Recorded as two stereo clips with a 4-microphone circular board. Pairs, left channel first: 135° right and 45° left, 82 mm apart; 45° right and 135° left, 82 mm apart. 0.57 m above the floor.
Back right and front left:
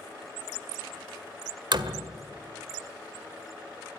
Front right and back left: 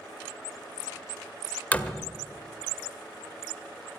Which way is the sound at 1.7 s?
25° left.